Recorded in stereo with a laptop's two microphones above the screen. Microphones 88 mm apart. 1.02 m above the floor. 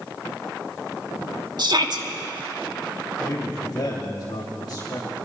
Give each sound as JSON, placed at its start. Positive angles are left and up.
{"t": 1.6, "sound": "a shout", "side_deg": -55, "distance_m": 1.5}
{"t": 3.2, "sound": "a man speaking", "side_deg": 50, "distance_m": 2.5}